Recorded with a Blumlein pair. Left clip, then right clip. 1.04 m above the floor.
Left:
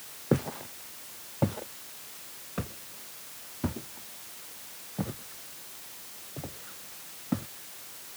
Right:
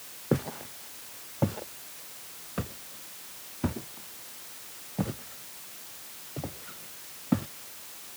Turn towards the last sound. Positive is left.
turn(degrees=-15)